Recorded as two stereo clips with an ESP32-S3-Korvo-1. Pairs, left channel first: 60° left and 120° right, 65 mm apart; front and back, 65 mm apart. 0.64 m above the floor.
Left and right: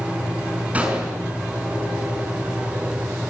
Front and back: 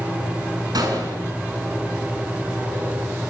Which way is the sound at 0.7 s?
170° left.